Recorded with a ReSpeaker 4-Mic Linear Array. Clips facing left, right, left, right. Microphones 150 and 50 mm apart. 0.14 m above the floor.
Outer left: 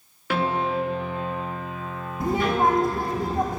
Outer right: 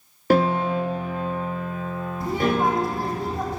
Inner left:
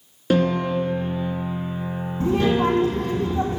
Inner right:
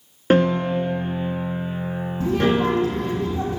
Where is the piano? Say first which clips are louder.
Outer right 5 dB, inner right 2 dB; 45° right (ahead or behind), 1.3 m.